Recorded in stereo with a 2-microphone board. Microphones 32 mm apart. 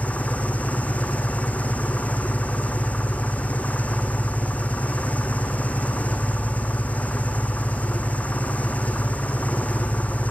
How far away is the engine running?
About 1.5 m.